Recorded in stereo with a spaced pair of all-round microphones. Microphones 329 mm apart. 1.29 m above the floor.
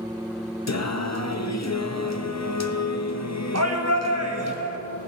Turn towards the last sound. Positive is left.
turn(degrees=-50)  # may be behind; listen again after turning